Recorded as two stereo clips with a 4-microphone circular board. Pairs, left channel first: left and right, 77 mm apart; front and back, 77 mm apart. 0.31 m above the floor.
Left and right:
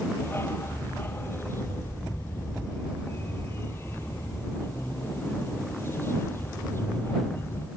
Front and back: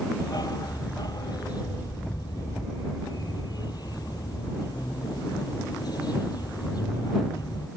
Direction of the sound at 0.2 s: 30° left.